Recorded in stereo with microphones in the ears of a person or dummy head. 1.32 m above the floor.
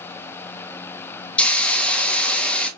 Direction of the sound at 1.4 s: 5° left (ahead or behind).